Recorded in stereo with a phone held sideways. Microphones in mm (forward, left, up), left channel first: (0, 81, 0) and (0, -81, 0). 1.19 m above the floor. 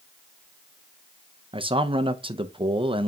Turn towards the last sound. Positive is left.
turn(degrees=-35)  # may be behind; listen again after turning